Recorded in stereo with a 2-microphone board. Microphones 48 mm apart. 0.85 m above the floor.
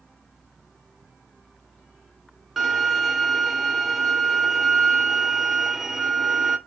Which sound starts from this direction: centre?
A violin, at 2.6 s.